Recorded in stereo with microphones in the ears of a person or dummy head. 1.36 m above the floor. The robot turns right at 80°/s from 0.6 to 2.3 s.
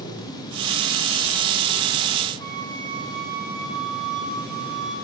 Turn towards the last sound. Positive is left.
turn(degrees=-55)  # may be behind; listen again after turning